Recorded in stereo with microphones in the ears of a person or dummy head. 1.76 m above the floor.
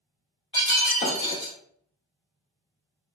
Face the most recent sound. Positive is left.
turn(degrees=25)  # may be behind; listen again after turning